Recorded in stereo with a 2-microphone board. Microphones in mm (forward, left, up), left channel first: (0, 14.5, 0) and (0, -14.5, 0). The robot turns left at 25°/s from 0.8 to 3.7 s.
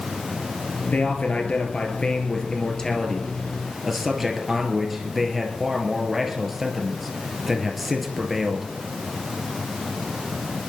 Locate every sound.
0.9 s a man speaking: 65° left, 3 m; by 8.8 s 5° right, 3 m